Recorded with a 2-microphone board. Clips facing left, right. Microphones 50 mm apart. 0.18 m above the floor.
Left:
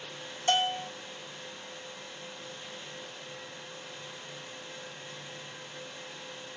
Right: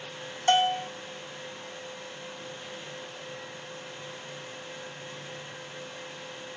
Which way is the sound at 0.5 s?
35° right (ahead or behind).